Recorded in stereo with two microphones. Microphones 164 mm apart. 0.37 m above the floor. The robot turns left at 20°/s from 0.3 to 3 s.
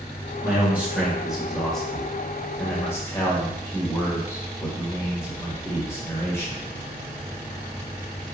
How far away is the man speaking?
About 1.2 m.